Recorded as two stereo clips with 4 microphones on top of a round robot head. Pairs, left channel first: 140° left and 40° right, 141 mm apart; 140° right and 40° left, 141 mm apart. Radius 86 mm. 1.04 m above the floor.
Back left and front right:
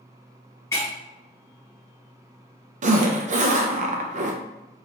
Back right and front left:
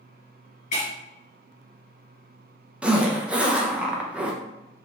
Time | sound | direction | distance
0.7 | breaking glass | 155° right | 1.1 m
2.8 | a zipper | 40° right | 0.6 m